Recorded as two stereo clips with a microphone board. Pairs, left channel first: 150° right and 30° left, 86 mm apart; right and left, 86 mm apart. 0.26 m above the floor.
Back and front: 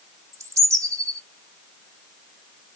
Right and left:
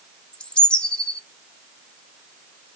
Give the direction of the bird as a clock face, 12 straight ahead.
12 o'clock.